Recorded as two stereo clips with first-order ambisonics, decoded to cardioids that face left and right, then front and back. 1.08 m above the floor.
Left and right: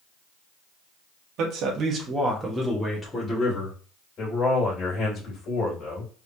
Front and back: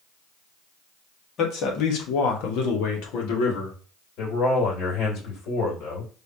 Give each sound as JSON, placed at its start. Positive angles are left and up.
{"t": 1.4, "sound": "a man speaking", "azimuth_deg": -50, "distance_m": 1.4}
{"t": 4.2, "sound": "a man speaking", "azimuth_deg": 30, "distance_m": 2.5}